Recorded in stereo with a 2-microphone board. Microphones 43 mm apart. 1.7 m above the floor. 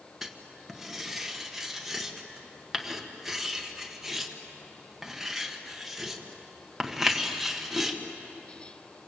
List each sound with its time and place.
0.2 s writing: 5° right (ahead or behind), 1.7 m